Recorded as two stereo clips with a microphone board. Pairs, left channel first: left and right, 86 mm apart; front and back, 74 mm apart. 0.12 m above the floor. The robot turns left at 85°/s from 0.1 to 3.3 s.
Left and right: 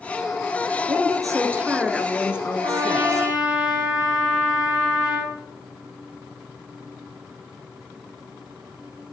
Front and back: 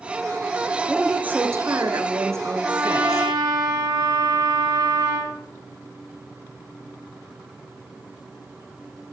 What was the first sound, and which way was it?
A woman speaking, 90° right.